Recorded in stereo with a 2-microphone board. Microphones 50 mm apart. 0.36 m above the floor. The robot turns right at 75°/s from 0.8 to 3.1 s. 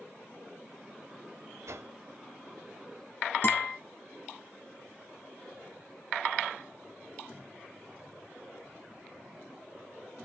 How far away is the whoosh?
About 0.6 m.